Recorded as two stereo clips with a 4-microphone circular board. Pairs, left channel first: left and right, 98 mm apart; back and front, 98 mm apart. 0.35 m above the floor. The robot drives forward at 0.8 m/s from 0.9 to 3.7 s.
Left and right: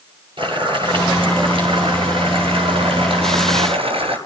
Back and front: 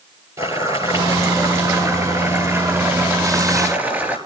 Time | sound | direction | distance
0.4 | boiling | 55° right | 8.5 m